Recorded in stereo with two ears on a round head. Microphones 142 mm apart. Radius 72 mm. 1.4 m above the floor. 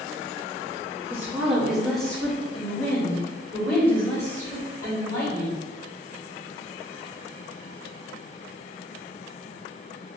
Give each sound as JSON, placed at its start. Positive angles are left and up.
{"t": 1.1, "sound": "a woman speaking", "side_deg": -15, "distance_m": 0.9}